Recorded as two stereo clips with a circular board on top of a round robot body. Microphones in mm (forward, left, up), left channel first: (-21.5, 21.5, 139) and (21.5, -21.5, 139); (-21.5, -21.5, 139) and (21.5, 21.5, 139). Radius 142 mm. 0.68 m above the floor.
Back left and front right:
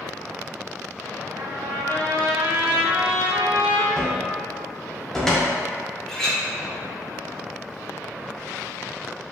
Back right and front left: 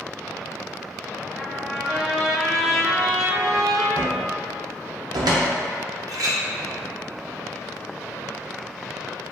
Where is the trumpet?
50° right, 1.3 m.